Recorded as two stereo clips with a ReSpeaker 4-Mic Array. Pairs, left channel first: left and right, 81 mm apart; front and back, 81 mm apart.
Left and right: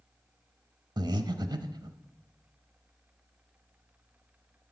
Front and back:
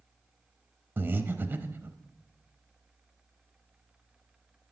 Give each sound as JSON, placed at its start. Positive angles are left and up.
{"t": 1.0, "sound": "breathing", "azimuth_deg": -115, "distance_m": 0.6}